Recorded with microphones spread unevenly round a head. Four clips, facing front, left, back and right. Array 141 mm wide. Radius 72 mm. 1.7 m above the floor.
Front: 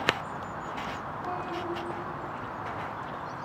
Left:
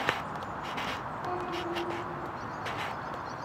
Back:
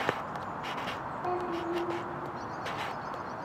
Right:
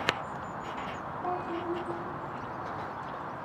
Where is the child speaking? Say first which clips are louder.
Right 2 dB, back 2 dB; 100° right, 2.5 m.